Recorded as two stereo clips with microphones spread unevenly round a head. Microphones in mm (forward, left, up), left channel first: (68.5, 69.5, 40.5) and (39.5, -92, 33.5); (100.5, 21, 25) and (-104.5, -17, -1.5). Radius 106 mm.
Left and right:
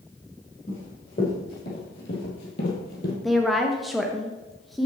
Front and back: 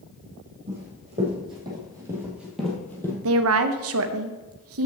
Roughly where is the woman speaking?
Behind.